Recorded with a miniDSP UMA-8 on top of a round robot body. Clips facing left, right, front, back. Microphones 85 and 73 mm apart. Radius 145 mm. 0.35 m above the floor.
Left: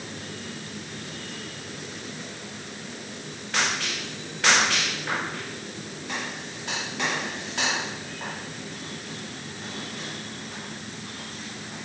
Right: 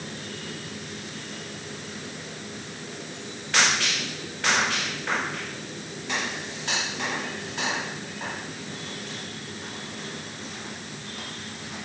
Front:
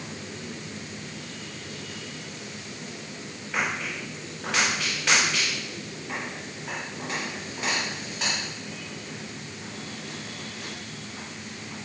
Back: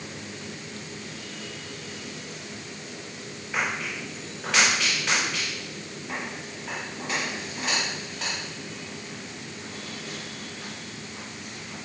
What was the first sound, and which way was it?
Only background noise.